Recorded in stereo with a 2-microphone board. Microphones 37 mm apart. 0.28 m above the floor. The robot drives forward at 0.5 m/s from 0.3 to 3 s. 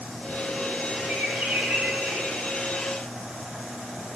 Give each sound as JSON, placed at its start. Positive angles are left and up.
{"t": 1.1, "sound": "a bird", "side_deg": -35, "distance_m": 1.7}